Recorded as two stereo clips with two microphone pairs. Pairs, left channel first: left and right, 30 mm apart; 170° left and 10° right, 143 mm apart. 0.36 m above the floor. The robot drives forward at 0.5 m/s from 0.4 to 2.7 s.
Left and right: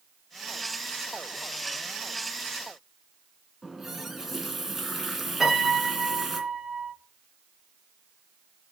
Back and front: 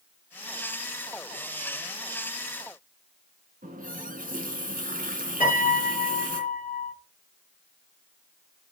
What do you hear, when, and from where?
3.6 s a running tap: 10° right, 2.5 m
5.4 s a piano: 175° right, 7 m